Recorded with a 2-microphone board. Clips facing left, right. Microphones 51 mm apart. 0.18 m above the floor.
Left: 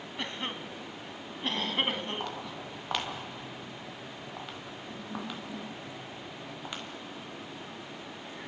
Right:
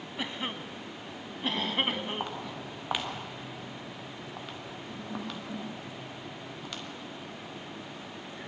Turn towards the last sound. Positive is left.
turn(degrees=15)  # may be behind; listen again after turning